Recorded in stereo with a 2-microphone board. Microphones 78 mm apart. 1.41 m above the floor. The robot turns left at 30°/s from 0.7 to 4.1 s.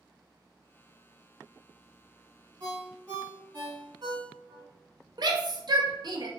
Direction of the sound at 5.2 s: 60° right (ahead or behind).